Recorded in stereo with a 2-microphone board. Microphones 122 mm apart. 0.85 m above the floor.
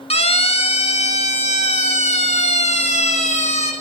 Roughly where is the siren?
Left.